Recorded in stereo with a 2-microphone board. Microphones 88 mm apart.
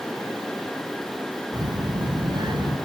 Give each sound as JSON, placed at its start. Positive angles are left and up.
{"t": 1.5, "sound": "a child speaking", "side_deg": -50, "distance_m": 1.5}